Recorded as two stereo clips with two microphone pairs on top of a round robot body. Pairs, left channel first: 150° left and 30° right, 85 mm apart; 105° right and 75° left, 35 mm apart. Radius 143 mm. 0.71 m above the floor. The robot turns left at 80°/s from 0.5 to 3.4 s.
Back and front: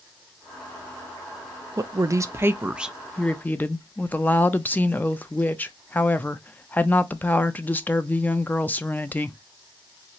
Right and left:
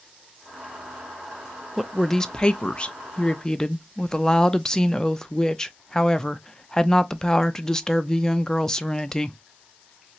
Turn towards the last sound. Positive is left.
turn(degrees=-150)